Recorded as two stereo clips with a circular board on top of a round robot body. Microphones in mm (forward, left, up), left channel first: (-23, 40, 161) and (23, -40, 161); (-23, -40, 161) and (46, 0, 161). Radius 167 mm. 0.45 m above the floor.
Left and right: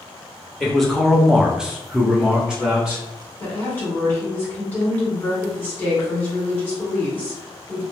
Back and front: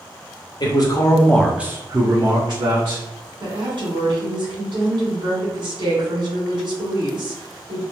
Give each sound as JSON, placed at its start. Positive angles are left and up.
{"t": 0.6, "sound": "a man speaking", "azimuth_deg": -155, "distance_m": 1.1}
{"t": 3.4, "sound": "a woman speaking", "azimuth_deg": 45, "distance_m": 1.8}